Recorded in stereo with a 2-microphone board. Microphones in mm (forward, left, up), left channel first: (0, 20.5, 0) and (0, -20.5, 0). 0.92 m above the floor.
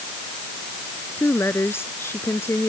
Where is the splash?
No splash in this recording.